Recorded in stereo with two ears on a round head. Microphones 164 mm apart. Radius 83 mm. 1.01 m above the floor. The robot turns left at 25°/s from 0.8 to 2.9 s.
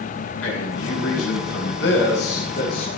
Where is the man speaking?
95° left, 8 m; by 2.9 s 45° left, 8 m.